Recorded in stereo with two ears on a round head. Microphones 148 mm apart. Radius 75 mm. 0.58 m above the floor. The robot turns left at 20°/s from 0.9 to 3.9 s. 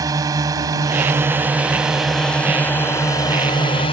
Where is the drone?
155° right; by 3.9 s 145° left.